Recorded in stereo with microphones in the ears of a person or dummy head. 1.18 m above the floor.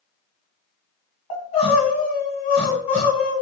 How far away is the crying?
About 1.4 m.